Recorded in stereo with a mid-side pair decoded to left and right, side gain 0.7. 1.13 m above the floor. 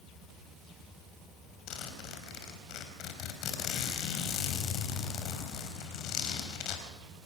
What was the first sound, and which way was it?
A zipper, 60° left.